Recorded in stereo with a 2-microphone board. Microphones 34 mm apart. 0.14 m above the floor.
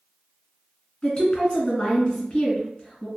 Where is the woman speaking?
20° left (ahead or behind), 1.6 m.